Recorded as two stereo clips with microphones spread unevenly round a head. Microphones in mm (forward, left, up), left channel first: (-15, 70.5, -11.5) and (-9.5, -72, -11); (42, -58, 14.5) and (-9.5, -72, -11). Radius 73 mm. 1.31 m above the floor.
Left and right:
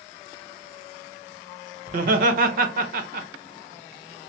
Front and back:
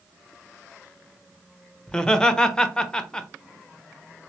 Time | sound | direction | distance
1.9 | laughter | 55° right | 0.9 m